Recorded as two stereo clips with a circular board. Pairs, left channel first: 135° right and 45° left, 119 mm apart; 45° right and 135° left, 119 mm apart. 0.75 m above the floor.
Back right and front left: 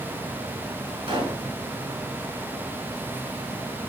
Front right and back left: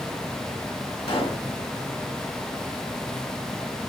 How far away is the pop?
About 4.5 m.